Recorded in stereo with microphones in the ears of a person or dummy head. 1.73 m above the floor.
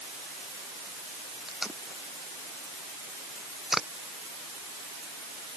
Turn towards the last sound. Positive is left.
turn(degrees=5)  # may be behind; listen again after turning